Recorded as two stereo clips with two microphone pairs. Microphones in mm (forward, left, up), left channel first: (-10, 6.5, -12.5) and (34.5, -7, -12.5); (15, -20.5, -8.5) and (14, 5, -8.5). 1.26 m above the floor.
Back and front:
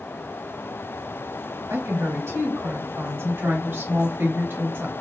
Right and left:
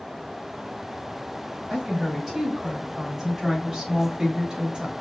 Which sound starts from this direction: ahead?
A woman speaking, at 1.7 s.